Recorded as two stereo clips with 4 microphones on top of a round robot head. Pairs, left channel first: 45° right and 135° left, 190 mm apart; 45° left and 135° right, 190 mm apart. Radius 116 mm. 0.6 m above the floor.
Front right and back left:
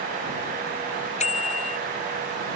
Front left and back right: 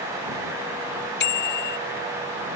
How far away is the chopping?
No chopping in this recording.